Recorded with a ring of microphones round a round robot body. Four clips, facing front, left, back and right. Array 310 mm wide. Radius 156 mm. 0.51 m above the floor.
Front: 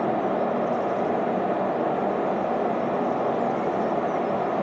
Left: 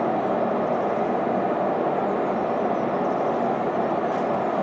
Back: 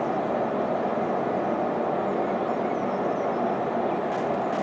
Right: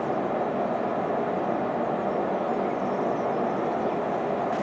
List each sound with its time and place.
Only background noise.